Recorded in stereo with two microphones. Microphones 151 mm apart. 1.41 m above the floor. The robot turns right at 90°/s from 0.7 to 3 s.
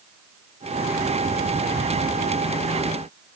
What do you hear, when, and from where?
Only background noise.